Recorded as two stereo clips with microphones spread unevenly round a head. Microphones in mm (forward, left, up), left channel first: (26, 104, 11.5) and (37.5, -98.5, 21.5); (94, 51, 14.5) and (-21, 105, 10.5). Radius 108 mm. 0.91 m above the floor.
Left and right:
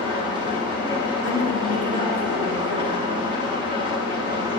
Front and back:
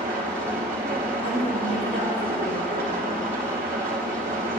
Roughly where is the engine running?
Behind right.